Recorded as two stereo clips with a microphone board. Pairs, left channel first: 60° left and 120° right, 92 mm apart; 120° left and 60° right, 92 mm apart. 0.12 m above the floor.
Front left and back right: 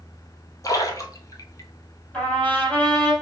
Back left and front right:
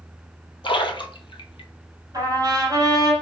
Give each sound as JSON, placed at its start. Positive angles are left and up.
{"t": 0.6, "sound": "a splash", "azimuth_deg": 105, "distance_m": 0.6}
{"t": 2.1, "sound": "a trumpet", "azimuth_deg": -15, "distance_m": 2.5}